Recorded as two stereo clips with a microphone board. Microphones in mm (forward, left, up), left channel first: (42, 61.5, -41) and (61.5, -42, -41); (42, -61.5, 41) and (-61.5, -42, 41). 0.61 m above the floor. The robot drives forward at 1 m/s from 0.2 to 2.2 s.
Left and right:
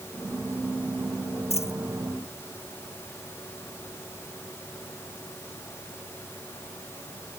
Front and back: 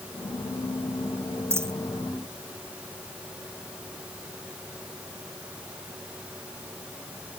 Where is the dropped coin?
100° left; by 1.8 s 105° left.